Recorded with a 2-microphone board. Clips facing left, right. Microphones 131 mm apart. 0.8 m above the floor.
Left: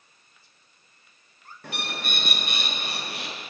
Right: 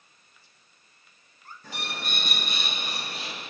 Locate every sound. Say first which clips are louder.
1.6 s a bird: left 2 dB; 70° left (ahead or behind), 0.6 m